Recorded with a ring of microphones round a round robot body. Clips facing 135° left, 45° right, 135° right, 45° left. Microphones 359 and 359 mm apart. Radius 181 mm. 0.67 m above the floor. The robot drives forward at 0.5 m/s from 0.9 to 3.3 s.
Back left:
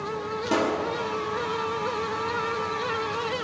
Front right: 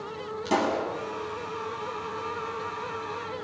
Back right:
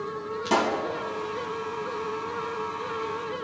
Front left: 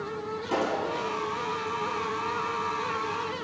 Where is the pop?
115° right, 6.5 m.